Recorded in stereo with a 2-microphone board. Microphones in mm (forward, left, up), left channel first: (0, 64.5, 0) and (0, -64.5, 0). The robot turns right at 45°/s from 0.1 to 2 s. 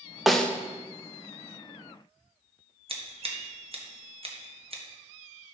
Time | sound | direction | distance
0.3 | a snare drum | centre (ahead or behind) | 0.7 m
2.9 | scissors | 50° right (ahead or behind) | 1.3 m